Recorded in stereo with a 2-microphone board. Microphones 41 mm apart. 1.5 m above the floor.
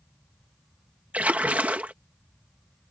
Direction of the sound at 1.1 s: 40° right (ahead or behind).